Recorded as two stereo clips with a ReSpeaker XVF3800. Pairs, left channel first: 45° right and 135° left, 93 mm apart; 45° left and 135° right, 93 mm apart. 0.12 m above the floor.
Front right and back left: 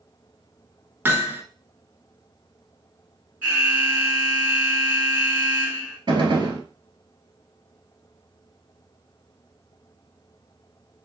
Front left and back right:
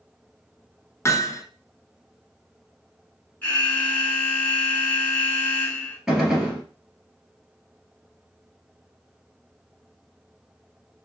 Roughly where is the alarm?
Left.